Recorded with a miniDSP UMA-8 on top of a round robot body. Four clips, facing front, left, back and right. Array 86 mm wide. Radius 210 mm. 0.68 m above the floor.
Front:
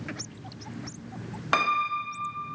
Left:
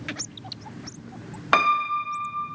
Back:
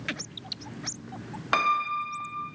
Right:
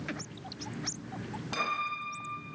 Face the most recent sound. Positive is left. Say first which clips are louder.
# left 13 dB, even
turn(degrees=85)